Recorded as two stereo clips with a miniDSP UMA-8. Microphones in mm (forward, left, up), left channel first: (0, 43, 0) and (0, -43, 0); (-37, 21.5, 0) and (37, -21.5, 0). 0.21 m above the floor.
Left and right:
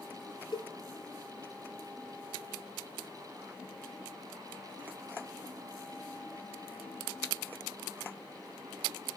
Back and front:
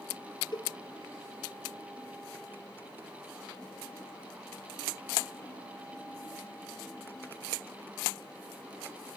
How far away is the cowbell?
About 1.9 m.